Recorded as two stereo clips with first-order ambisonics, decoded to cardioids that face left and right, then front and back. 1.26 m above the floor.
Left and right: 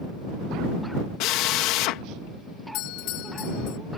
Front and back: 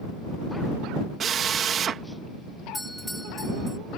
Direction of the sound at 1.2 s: 120° left.